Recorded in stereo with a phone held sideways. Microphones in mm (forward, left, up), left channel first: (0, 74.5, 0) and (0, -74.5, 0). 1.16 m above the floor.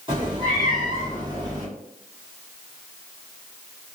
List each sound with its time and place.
0.1 s a cat meowing: 35° right (ahead or behind), 1.5 m; by 1.7 s 25° right (ahead or behind), 1.0 m